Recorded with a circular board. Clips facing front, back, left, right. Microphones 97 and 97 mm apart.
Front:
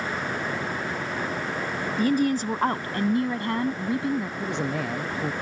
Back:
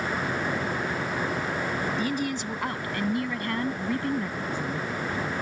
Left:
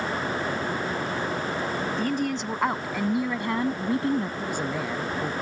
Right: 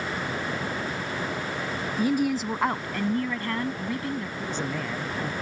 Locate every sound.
2.0 s a woman speaking: 15° right; by 4.3 s 65° left
4.4 s a man speaking: 10° left